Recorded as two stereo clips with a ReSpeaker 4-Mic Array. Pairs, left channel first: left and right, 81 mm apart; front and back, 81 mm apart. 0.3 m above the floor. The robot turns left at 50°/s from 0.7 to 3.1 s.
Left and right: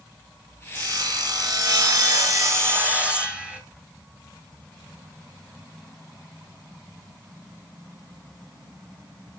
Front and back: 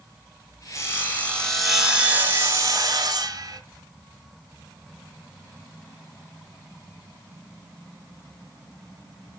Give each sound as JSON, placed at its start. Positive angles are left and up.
{"t": 0.8, "sound": "sawing", "azimuth_deg": -45, "distance_m": 1.6}